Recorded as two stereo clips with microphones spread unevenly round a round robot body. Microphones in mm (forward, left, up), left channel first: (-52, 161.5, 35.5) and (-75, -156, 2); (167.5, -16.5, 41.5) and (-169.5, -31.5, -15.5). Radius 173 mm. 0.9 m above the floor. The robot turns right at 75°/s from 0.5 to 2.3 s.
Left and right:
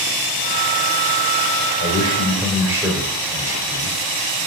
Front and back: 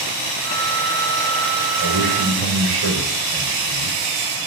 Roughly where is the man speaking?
Behind left.